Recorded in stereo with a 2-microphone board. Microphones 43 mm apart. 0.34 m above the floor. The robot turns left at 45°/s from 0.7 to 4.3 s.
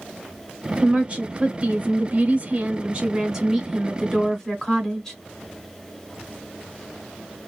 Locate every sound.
0.8 s a woman speaking: 40° right, 1.0 m; by 5.2 s 165° left, 1.0 m